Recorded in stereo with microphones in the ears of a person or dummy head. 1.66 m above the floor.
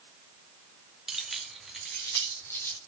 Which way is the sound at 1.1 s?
Centre (ahead or behind).